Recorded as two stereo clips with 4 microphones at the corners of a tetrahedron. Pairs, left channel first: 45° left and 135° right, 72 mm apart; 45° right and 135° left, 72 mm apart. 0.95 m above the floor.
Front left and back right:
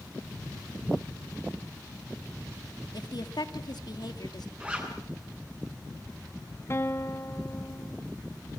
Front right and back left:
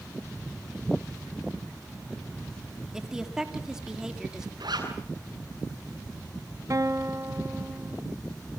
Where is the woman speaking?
55° left, 2.5 m.